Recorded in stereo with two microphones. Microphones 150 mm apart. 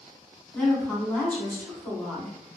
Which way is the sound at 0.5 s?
10° left (ahead or behind).